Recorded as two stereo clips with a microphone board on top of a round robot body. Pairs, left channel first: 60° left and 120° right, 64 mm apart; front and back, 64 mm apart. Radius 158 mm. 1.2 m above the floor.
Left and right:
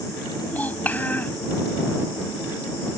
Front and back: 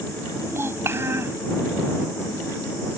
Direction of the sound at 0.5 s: 125° left.